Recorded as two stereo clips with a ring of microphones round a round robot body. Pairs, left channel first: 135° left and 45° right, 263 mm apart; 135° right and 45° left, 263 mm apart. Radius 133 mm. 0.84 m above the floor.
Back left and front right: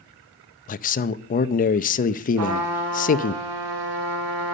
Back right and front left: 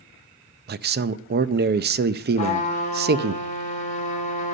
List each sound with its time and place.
0.7 s a man speaking: 85° left, 0.6 m
2.4 s a trumpet: 70° right, 3.5 m